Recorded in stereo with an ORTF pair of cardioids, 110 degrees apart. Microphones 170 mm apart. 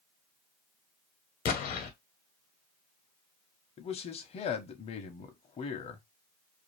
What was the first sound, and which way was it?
An explosion, 60° left.